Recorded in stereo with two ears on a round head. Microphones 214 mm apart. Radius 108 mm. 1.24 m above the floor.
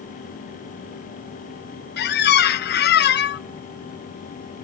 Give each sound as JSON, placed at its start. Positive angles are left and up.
{"t": 2.0, "sound": "a squeak", "side_deg": 45, "distance_m": 0.6}